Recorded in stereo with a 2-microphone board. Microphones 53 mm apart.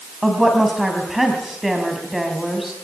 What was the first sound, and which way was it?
A woman speaking, centre (ahead or behind).